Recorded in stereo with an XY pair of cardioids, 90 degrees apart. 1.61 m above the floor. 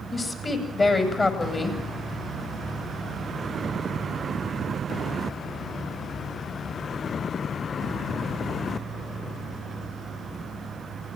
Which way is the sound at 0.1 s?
35° left.